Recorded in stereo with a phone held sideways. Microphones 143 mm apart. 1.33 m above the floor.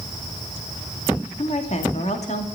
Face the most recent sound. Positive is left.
turn(degrees=50)  # may be behind; listen again after turning